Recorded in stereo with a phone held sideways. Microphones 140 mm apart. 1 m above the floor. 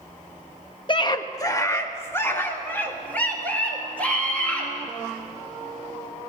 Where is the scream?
35° left (ahead or behind), 1.4 m; by 4.7 s 10° left (ahead or behind), 6.5 m.